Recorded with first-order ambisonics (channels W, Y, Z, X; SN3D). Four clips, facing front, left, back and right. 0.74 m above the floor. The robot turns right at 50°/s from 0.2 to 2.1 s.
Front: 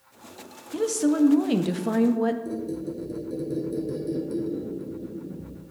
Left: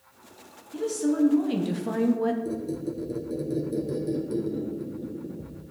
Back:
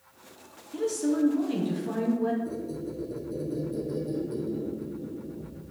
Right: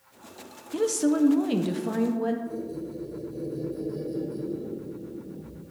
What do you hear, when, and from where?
0.7 s a woman speaking: 60° right, 0.5 m; by 2.4 s 10° left, 0.5 m
2.5 s a squeak: 60° left, 1.8 m